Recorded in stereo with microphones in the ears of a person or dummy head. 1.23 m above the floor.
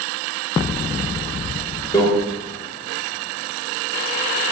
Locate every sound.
1.9 s a microwave: 15° left (ahead or behind), 0.6 m